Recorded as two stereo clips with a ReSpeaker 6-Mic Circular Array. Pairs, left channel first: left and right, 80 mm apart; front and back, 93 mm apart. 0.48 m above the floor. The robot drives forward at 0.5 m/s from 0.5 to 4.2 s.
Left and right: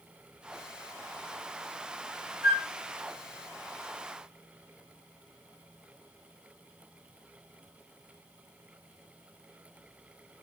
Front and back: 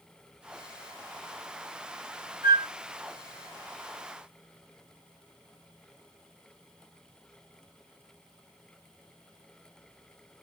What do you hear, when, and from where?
2.4 s a flute: 155° right, 2 m